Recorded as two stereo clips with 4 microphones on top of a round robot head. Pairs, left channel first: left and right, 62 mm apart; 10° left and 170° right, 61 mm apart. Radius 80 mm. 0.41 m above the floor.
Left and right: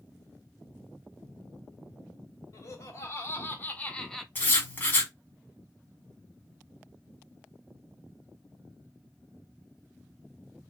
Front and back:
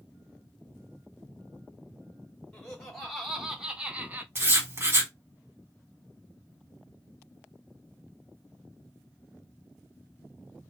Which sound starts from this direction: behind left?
Writing, at 4.3 s.